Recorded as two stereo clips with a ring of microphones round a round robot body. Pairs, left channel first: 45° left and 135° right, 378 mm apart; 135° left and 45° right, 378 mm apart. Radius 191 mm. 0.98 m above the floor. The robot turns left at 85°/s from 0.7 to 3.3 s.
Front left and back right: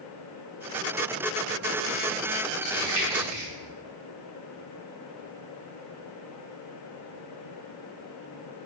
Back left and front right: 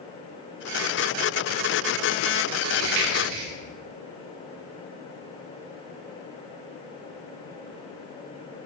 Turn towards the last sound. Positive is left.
turn(degrees=-65)